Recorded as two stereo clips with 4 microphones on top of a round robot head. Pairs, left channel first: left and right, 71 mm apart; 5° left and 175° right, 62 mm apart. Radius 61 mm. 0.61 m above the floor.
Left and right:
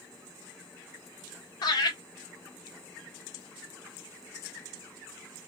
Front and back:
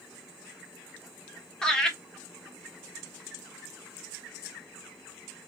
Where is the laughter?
85° left, 1.4 m.